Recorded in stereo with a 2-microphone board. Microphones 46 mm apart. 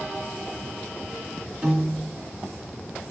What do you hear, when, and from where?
1.6 s a piano: 10° right (ahead or behind), 1.5 m